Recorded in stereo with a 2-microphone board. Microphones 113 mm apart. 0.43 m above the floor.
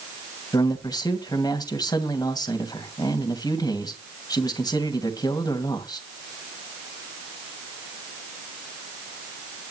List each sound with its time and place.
0.5 s a man speaking: 35° left (ahead or behind), 2 m